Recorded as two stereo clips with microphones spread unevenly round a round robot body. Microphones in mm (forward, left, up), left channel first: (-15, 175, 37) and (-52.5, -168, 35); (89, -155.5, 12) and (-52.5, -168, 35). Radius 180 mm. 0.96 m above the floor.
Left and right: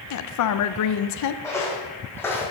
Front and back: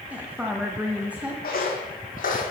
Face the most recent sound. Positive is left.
turn(degrees=0)